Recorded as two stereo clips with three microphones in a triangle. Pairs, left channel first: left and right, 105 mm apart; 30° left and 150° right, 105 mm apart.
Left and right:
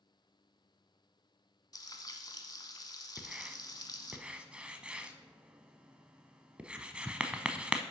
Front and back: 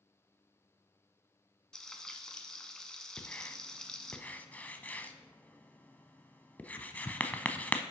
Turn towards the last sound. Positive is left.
turn(degrees=-25)